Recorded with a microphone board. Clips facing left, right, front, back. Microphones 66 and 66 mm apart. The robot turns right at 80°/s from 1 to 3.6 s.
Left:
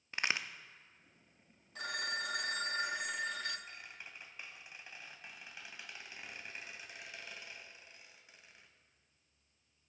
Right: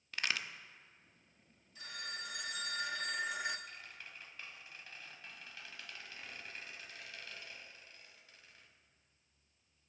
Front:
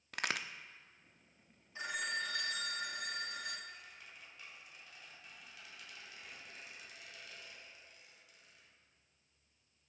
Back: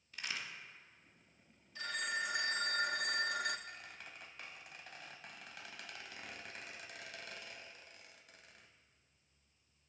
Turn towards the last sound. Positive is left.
turn(degrees=160)